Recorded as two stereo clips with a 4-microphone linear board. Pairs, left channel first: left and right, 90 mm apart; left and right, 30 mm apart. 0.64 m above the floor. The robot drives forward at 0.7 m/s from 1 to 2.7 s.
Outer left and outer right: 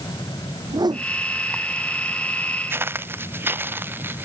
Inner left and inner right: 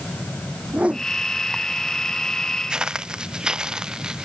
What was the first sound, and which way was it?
A whoosh, 50° right (ahead or behind).